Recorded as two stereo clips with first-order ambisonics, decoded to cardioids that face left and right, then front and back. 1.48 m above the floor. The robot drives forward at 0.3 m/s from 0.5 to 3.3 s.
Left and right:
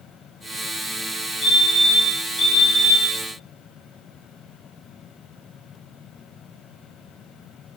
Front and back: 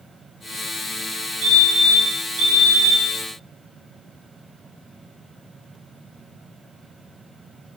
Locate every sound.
1.4 s a fire alarm: 165° left, 6.5 m